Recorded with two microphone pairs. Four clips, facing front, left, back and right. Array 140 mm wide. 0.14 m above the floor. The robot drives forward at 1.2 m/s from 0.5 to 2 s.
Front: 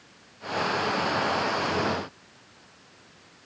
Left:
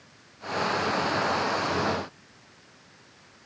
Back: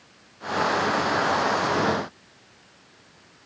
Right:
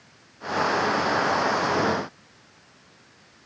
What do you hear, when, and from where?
Only background noise.